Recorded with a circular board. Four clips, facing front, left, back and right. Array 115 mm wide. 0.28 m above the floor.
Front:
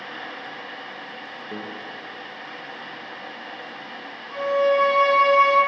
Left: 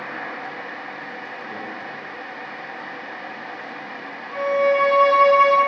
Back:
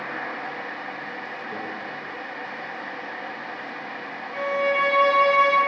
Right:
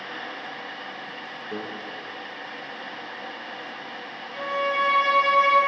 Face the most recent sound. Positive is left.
turn(degrees=50)